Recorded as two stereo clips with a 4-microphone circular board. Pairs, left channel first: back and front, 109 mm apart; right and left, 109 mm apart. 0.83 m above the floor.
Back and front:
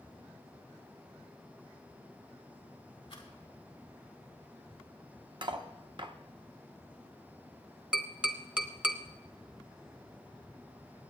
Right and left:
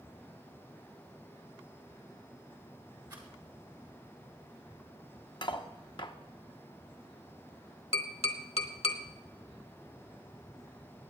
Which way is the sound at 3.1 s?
140° left.